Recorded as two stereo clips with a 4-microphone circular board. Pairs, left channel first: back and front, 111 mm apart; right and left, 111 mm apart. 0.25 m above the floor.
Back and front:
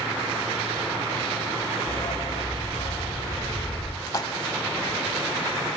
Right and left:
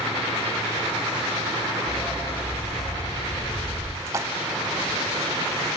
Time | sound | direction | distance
1.9 | a dog barking | 155° right | 5.5 m
4.1 | a splash | 140° left | 0.7 m